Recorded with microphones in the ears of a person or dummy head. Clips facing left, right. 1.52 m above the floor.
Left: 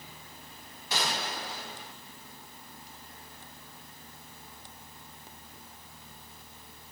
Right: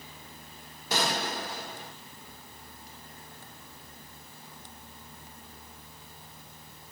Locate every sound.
0.9 s a gunshot: 45° right (ahead or behind), 1.1 m